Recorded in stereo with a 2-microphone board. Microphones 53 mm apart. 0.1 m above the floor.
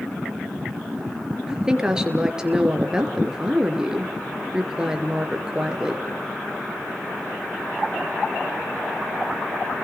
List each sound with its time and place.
1.5 s a woman speaking: 15° right (ahead or behind), 2 m